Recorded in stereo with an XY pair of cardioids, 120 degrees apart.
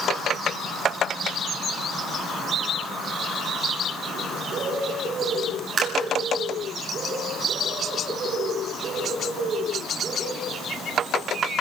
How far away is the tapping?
About 8 m.